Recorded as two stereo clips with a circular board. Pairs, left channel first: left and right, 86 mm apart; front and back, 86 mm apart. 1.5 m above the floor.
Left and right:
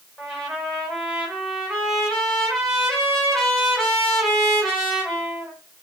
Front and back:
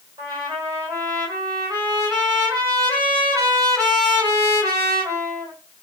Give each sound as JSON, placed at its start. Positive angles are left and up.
{"t": 0.2, "sound": "a trumpet", "azimuth_deg": -175, "distance_m": 1.8}